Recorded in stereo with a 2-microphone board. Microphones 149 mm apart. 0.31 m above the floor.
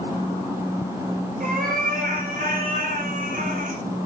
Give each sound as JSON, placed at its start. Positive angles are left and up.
{"t": 1.4, "sound": "a cat meowing", "side_deg": -75, "distance_m": 3.0}